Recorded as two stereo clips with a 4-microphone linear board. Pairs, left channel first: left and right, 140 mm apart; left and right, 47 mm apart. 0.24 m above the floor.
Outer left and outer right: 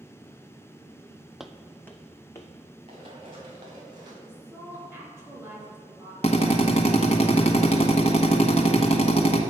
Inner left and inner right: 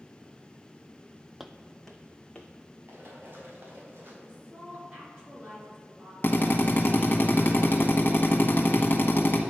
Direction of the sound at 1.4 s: 5° right (ahead or behind).